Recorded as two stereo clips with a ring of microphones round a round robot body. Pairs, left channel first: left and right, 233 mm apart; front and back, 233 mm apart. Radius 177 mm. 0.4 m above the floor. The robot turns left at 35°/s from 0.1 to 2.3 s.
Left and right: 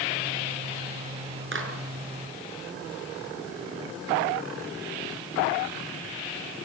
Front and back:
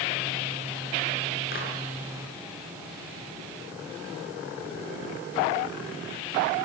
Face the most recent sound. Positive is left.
turn(degrees=-85)